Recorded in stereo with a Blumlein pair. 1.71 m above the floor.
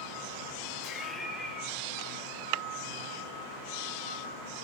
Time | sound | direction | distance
0.8 | laughter | 25° left | 0.8 m